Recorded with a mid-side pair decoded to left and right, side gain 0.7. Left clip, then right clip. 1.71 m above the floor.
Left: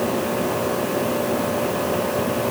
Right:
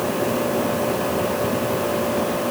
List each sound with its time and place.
Only background noise.